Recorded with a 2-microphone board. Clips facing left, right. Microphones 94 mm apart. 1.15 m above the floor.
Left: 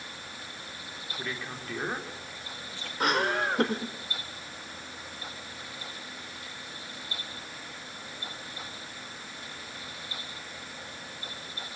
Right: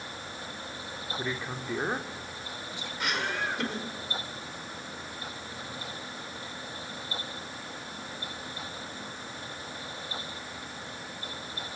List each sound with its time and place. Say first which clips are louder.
1.2 s a man speaking: right 2 dB; 20° right (ahead or behind), 3 m
3.0 s laughter: left 5 dB; 45° left (ahead or behind), 4 m